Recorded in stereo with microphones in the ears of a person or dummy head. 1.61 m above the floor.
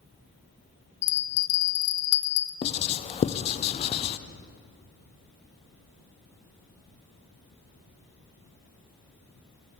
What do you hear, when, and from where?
1.0 s a bell: 85° left, 1.1 m
2.6 s writing: 30° left (ahead or behind), 0.6 m